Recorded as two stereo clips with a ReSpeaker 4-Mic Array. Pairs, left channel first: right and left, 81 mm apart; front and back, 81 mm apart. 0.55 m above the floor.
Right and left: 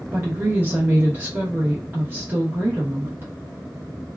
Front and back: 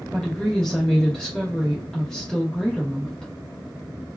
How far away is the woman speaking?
About 0.9 m.